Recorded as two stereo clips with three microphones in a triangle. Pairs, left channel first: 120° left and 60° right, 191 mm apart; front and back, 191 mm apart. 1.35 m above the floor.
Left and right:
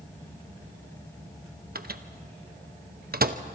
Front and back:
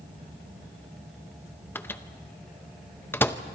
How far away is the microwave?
About 0.7 m.